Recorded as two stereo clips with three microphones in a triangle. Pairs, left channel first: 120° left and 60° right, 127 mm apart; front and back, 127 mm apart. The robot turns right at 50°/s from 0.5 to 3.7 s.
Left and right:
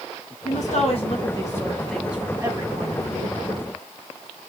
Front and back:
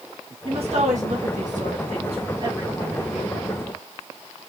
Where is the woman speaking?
135° left, 1.8 m; by 3.4 s 80° right, 1.8 m.